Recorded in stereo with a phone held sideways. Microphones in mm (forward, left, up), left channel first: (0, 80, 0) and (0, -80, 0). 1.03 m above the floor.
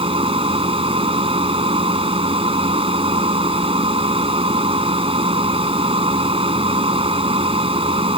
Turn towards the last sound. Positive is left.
turn(degrees=-35)  # may be behind; listen again after turning